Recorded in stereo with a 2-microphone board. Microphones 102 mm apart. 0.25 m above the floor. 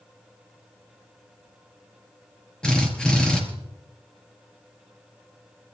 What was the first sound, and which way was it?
A drill, 10° left (ahead or behind).